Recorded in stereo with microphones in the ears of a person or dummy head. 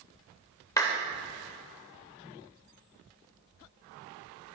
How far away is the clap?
About 0.6 m.